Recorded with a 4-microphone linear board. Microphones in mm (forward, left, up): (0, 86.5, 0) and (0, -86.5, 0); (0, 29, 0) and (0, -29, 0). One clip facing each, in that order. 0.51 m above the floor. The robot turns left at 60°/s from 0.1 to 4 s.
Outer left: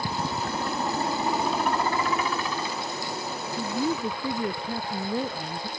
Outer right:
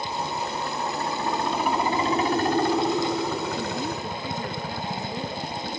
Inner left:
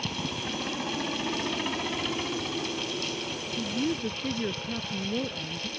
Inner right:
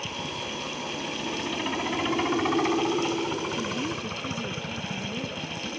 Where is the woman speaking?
5° left (ahead or behind); by 5.7 s 30° left (ahead or behind).